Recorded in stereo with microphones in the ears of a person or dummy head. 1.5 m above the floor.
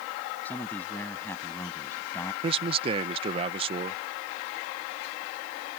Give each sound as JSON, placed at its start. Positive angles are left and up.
{"t": 0.5, "sound": "a man speaking", "side_deg": 10}
{"t": 2.4, "sound": "a man speaking", "side_deg": -35}